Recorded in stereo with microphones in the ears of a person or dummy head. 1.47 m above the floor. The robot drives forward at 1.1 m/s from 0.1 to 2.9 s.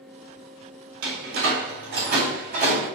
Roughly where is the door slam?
Right.